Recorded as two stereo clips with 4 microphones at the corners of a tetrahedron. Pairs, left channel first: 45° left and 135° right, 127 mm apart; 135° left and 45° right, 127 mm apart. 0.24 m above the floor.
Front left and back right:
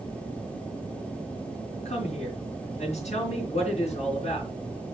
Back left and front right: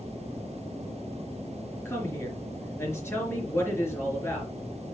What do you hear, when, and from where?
1.9 s a woman speaking: 65° left, 3.5 m